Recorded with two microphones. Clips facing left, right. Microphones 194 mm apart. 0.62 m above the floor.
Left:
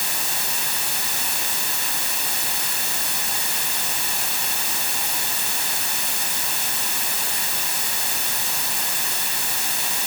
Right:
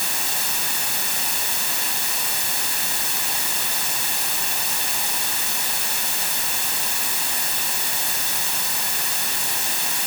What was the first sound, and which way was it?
Only background noise.